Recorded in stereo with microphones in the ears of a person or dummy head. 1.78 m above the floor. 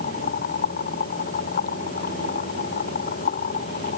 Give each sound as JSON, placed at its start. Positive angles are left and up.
{"t": 0.0, "sound": "a machine running", "side_deg": 40}